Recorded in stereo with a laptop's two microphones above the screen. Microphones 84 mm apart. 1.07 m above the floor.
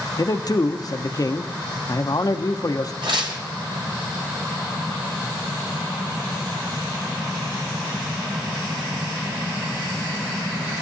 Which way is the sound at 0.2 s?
45° left (ahead or behind).